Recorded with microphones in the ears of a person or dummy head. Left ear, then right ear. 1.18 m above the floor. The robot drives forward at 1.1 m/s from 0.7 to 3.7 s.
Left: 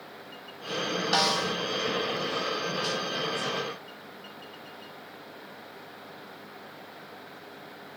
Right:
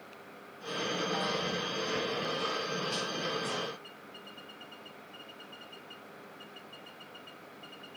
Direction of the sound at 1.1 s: 70° left (ahead or behind).